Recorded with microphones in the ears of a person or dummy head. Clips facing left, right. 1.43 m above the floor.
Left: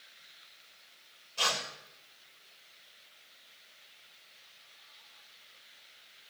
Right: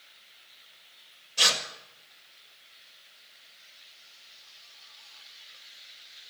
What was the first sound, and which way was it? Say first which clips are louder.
Tearing paper: right 2 dB; 20° right (ahead or behind).